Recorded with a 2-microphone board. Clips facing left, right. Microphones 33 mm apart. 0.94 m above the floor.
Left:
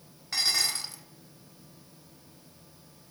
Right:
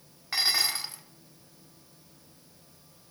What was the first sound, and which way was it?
Dishes clattering, 15° right (ahead or behind).